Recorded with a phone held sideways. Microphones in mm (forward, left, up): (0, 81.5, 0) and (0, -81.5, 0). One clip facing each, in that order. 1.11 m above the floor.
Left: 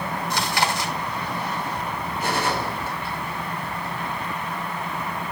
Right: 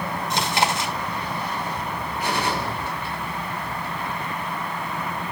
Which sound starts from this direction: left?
A gunshot, at 2.2 s.